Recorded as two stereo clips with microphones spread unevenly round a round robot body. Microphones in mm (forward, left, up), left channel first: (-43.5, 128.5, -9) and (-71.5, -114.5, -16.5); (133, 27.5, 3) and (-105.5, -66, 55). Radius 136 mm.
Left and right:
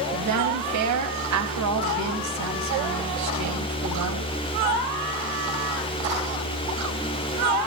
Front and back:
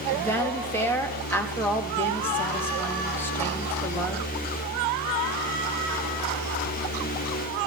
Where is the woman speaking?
60° right, 4.5 m.